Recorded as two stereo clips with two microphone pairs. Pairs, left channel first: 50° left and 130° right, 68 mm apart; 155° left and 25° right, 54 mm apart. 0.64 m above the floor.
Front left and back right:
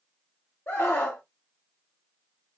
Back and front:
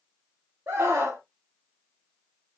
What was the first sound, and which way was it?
A scream, 5° right.